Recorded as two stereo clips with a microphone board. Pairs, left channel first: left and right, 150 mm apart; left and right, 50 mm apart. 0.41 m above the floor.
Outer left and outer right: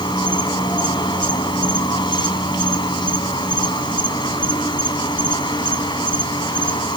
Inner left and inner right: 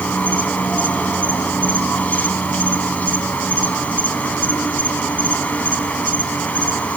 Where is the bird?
No bird in this recording.